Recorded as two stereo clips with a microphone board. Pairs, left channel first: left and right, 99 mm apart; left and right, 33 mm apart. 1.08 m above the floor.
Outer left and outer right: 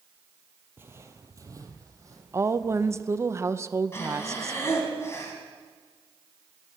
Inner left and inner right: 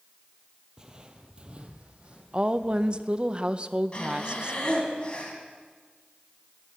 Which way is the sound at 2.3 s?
30° right (ahead or behind).